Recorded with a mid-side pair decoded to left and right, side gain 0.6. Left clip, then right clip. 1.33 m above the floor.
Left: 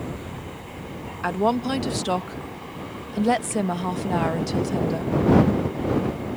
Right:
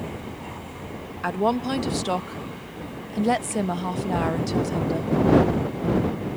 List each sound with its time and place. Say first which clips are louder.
1.2 s a woman speaking: left 1 dB; 5° left